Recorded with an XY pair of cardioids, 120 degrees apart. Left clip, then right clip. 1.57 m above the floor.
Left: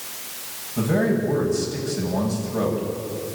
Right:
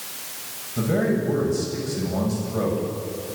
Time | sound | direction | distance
0.8 | a man speaking | straight ahead | 7.5 m